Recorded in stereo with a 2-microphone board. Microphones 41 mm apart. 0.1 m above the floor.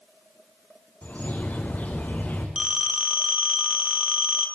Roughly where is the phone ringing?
Centre.